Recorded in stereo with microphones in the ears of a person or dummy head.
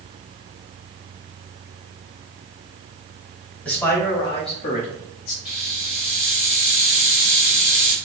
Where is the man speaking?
5° left (ahead or behind), 1.5 m; by 5.3 s 55° left (ahead or behind), 1.8 m.